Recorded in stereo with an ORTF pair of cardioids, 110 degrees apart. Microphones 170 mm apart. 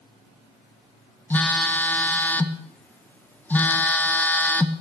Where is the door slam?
I don't hear a door slam.